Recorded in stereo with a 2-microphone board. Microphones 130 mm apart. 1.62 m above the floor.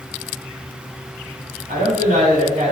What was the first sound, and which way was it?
A woman speaking, 80° right.